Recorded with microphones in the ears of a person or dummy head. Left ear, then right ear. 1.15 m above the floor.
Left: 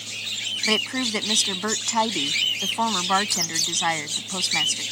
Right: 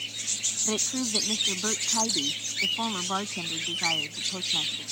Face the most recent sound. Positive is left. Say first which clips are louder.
# left 10 dB
turn(degrees=70)  # may be behind; listen again after turning